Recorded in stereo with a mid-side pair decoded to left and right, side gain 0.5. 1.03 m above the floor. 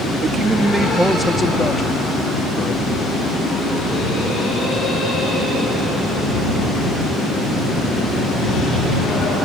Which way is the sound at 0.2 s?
50° right.